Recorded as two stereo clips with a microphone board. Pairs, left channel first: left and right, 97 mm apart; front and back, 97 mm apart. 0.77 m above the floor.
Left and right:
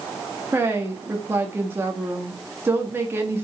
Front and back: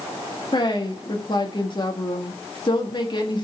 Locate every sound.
0.5 s a woman speaking: 25° right, 1.4 m